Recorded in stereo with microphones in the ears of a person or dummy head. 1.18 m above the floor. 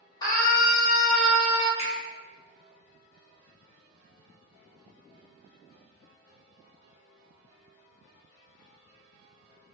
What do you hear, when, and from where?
0.2 s a scream: 25° left (ahead or behind), 1.3 m; by 1.7 s 20° right (ahead or behind), 0.8 m
1.8 s a finger snap: 35° left (ahead or behind), 0.7 m